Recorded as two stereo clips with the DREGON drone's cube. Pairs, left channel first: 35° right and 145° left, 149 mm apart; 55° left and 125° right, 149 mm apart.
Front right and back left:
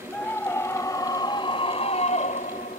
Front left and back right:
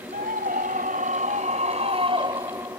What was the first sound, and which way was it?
A scream, 115° right.